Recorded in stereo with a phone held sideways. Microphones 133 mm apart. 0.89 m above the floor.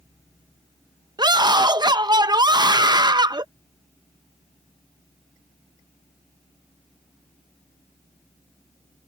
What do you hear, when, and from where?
1.2 s a scream: 30° right (ahead or behind)